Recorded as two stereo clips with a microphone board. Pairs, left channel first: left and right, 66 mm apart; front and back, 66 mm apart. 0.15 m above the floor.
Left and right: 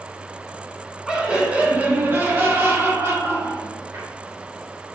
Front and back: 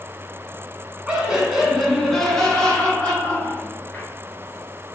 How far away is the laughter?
About 1.3 m.